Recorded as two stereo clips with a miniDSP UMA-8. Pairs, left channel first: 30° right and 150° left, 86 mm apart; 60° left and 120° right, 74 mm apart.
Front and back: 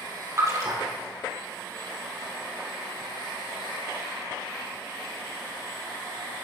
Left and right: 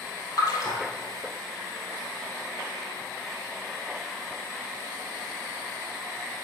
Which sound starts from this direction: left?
A splash, at 0.4 s.